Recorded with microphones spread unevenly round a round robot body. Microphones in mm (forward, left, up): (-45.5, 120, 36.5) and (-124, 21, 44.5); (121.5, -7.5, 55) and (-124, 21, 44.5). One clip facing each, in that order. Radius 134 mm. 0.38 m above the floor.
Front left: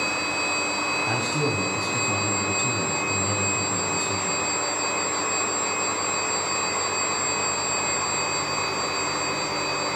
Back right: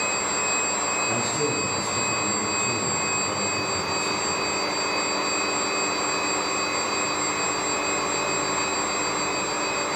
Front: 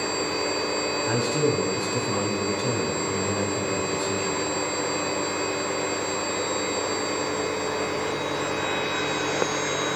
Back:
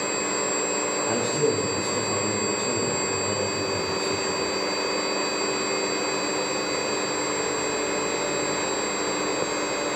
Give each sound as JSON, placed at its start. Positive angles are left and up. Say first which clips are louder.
{"t": 1.1, "sound": "a man speaking", "louder": "front left 1 dB, even", "azimuth_deg": 50, "distance_m": 3.5}